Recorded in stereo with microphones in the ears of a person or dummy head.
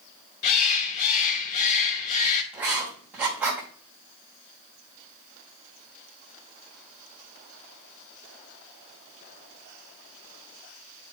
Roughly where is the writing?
Centre.